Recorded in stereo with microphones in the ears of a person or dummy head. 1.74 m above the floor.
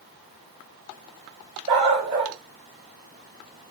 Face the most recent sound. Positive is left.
turn(degrees=-30)  # may be behind; listen again after turning